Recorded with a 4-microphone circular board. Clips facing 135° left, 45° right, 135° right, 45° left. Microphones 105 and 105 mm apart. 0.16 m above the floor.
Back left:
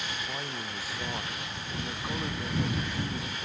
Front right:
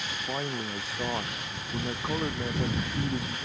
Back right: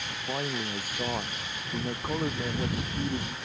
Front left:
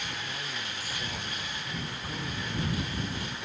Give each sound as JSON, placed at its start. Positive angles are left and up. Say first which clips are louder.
{"t": 0.3, "sound": "a man speaking", "louder": "front right 5 dB, back right 7 dB", "azimuth_deg": -105}